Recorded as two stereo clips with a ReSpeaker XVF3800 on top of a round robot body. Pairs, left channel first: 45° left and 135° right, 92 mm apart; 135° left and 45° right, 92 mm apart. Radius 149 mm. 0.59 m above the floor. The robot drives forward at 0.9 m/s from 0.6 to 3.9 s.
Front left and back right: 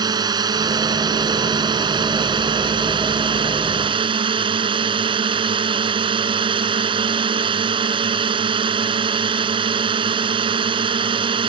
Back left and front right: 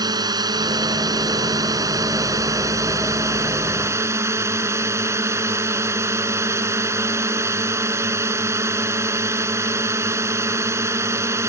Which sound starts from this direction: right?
A drone, at 0.0 s.